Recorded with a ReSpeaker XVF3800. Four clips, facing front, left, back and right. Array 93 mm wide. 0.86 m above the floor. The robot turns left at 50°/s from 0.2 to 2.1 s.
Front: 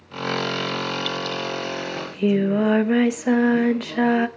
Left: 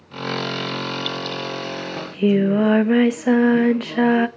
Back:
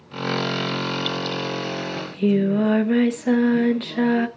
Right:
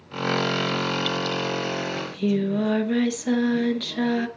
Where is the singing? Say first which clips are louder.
Left 8 dB, even; 75° left, 0.9 m; by 4.3 s 70° left, 0.9 m.